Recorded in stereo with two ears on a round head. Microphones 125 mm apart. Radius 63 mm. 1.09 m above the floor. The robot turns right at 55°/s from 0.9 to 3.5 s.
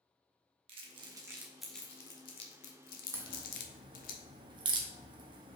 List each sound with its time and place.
0.7 s crumpling: 40° right (ahead or behind), 1.2 m; by 4.1 s 75° left (ahead or behind), 1.2 m
3.1 s a crack: 15° right (ahead or behind), 1.1 m; by 5.5 s 35° right (ahead or behind), 1.1 m